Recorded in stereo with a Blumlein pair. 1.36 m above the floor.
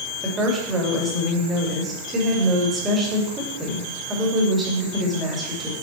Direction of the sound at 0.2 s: 15° right.